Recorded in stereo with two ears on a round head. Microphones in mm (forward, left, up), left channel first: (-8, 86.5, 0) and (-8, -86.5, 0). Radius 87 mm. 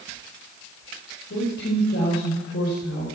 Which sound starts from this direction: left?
A woman speaking, at 1.3 s.